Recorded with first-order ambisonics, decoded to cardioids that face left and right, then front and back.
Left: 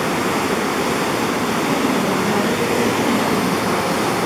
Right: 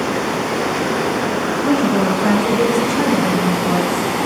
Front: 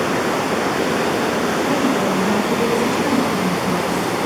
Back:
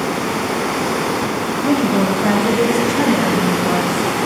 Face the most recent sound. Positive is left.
turn(degrees=-155)